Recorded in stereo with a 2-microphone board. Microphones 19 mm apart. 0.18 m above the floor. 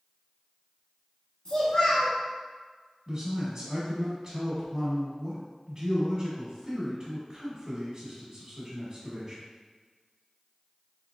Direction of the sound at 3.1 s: 20° right (ahead or behind).